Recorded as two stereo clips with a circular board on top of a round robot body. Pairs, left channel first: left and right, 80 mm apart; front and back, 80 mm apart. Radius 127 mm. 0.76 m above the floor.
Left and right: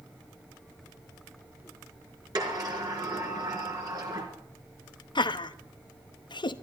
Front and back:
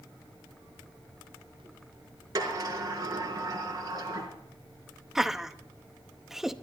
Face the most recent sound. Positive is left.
turn(degrees=95)